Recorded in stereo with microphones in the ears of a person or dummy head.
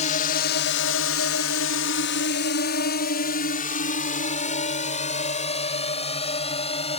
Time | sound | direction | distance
0.0 | a drone | 40° left (ahead or behind) | ?